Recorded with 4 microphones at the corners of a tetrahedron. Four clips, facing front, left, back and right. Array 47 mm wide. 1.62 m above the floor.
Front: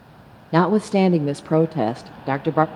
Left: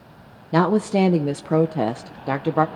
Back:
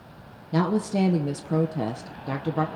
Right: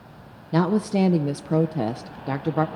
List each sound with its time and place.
0.5 s a woman speaking: 30° left, 0.7 m